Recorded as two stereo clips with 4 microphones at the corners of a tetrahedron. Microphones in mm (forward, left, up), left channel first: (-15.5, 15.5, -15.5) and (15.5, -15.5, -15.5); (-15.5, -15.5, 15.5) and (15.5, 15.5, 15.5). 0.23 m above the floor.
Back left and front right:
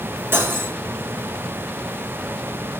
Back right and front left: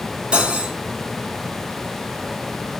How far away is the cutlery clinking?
About 1.3 m.